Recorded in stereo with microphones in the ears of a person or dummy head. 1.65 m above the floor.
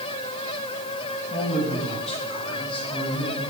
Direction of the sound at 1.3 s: 40° left (ahead or behind).